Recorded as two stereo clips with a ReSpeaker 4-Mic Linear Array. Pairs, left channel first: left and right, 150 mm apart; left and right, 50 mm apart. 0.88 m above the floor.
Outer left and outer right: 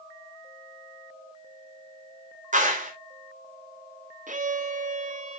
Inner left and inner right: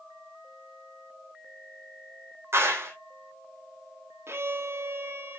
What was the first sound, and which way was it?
A clap, 60° right (ahead or behind).